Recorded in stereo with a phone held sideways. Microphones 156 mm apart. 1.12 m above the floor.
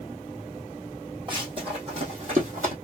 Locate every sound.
1.3 s running footsteps: 30° right (ahead or behind), 2.5 m; by 2.7 s 55° right (ahead or behind), 2 m